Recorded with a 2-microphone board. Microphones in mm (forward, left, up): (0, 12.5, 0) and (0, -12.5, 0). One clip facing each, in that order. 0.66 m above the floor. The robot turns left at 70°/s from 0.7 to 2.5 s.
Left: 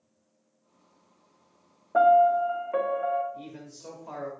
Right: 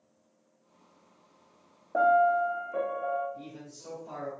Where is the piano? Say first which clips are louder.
Left 4 dB; 105° left, 0.7 m; by 3.2 s 65° left, 0.7 m.